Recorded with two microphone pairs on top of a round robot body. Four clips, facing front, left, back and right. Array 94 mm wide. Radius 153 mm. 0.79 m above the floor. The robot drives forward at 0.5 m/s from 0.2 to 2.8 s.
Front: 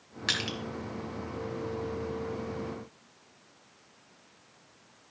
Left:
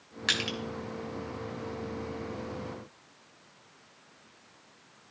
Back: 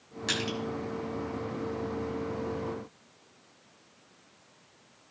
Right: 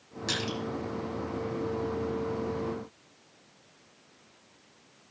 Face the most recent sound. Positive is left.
turn(degrees=90)